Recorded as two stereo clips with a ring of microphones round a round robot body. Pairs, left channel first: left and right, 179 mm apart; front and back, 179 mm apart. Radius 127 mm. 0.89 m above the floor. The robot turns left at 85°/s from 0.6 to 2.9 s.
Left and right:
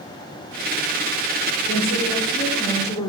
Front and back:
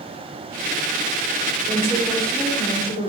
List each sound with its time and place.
1.7 s a woman speaking: 135° left, 3 m; by 3.1 s 30° left, 3 m